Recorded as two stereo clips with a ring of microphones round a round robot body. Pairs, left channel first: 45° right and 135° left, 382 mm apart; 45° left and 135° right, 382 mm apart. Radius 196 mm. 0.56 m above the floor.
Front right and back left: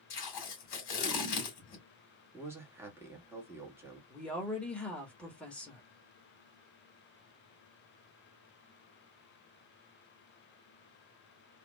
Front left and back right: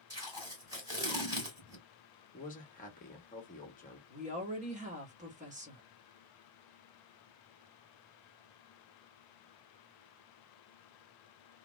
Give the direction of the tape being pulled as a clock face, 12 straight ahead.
2 o'clock.